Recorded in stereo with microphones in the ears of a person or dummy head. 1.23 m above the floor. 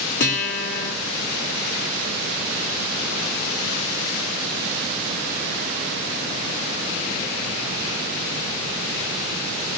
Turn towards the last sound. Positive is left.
turn(degrees=65)  # may be behind; listen again after turning